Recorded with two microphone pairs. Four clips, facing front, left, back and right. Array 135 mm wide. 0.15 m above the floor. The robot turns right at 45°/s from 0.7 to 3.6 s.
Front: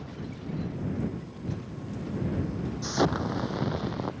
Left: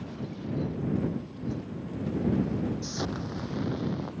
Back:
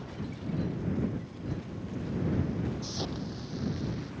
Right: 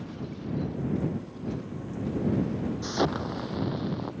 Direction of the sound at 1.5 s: 80° right.